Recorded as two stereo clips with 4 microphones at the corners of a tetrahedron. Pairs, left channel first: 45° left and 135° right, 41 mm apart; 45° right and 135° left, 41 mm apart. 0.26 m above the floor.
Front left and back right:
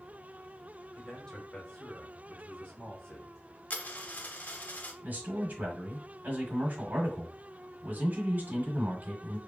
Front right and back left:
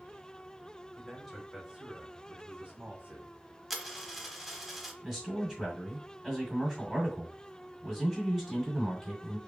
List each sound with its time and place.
1.0 s a man speaking: 15° left, 1.0 m; by 3.4 s 110° left, 1.5 m
3.7 s a dropped coin: 50° left, 0.6 m
5.0 s a man speaking: 150° right, 1.4 m